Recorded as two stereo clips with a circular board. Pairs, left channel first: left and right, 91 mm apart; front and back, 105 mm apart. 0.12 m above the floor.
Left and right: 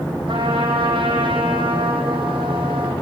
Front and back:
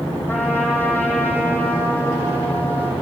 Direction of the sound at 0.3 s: 70° right.